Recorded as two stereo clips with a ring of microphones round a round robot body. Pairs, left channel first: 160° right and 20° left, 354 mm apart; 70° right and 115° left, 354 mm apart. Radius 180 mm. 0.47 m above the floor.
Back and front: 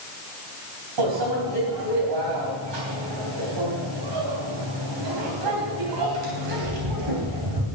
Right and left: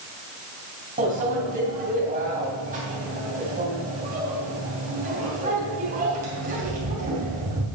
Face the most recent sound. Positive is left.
turn(degrees=45)